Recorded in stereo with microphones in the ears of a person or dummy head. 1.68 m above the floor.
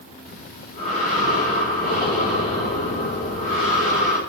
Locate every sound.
0.2 s breathing: 35° left (ahead or behind), 4 m